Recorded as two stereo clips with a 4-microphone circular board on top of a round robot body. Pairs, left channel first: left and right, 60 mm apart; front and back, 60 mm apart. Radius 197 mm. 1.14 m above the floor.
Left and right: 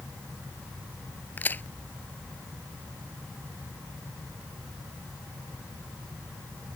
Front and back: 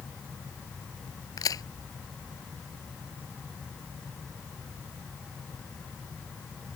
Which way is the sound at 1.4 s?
25° left.